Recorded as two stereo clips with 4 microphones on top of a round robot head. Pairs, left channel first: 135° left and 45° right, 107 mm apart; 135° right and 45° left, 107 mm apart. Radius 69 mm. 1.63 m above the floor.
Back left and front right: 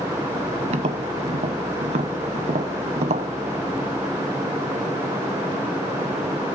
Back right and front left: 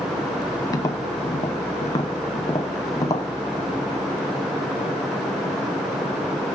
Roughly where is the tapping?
Right.